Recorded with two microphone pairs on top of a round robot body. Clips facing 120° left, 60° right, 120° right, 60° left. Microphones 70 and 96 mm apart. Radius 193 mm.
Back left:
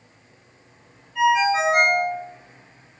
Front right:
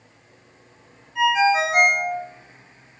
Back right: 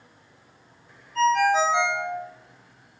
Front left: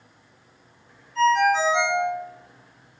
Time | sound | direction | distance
1.1 | a ringtone | 130° right | 1.6 m